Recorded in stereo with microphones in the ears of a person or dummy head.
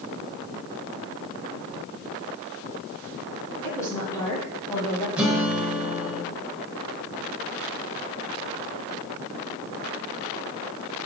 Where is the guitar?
10° right (ahead or behind), 1.0 m.